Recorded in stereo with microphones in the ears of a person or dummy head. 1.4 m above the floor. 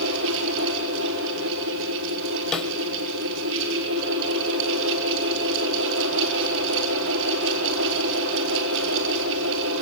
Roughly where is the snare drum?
Centre.